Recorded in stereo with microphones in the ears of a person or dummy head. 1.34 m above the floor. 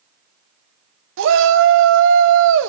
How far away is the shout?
About 0.8 m.